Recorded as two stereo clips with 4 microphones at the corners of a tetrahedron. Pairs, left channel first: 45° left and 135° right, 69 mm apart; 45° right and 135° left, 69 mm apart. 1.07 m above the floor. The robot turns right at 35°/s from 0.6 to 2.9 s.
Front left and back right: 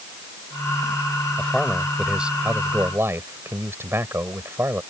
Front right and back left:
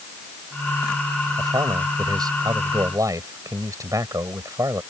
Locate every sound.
1.4 s a man speaking: 120° left; by 4.8 s 170° left